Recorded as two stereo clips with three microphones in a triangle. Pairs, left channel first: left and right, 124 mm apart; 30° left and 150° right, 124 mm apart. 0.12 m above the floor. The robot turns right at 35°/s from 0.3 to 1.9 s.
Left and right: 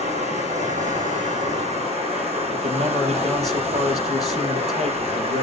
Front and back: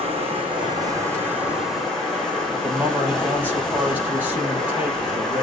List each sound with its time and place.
0.0 s running water: 115° right, 5 m; by 5.4 s 55° right, 5 m
2.5 s a man speaking: 75° right, 4 m